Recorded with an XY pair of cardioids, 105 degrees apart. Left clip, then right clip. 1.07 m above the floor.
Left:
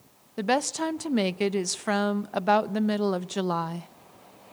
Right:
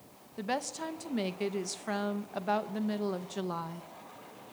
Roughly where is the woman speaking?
Ahead left.